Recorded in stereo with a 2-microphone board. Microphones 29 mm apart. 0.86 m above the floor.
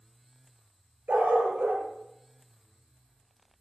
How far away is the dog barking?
About 4.5 m.